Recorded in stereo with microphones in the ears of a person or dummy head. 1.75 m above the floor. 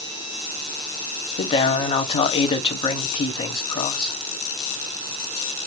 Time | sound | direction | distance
1.4 | a man speaking | 30° left (ahead or behind) | 0.8 m